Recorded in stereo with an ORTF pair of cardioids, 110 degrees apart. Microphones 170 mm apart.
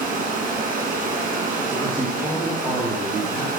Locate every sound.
0.0 s running water: 50° right, 1.5 m
1.7 s a man speaking: 5° right, 1.4 m